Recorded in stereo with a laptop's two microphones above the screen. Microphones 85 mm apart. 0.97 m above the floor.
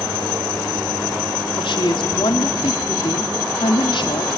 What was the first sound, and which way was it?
A woman speaking, 75° left (ahead or behind).